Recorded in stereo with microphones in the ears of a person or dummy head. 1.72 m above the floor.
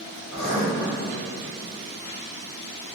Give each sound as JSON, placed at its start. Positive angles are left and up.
{"t": 0.3, "sound": "writing", "side_deg": 40, "distance_m": 1.5}